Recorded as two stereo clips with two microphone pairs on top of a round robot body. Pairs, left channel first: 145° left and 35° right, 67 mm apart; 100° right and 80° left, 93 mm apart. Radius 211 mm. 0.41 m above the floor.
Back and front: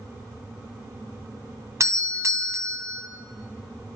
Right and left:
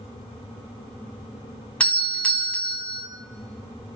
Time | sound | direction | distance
1.8 | a doorbell | 25° right | 2.5 m